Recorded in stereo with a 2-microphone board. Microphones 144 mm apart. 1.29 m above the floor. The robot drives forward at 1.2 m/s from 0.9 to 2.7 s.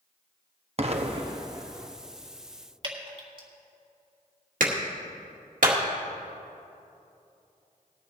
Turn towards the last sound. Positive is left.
turn(degrees=-70)  # may be behind; listen again after turning